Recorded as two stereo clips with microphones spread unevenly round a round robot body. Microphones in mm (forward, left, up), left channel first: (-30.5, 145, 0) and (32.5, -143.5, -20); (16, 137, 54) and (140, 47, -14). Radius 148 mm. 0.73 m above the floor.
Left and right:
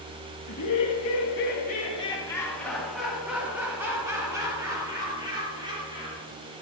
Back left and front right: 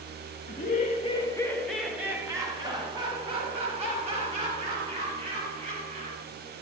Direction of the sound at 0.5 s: 105° left.